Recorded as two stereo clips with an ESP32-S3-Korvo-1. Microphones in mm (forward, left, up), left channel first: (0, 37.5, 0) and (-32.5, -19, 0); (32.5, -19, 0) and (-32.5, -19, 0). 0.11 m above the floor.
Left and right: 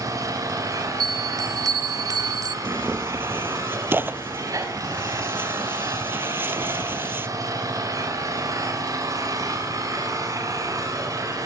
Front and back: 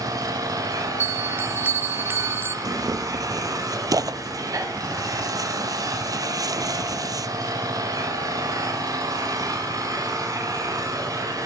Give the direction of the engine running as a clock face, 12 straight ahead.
5 o'clock.